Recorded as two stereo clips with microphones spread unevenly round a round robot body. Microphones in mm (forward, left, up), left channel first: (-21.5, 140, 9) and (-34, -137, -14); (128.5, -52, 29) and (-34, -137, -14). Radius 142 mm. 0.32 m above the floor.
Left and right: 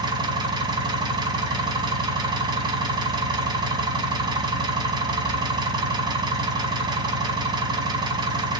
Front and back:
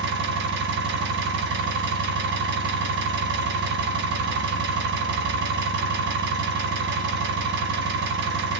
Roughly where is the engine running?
Behind.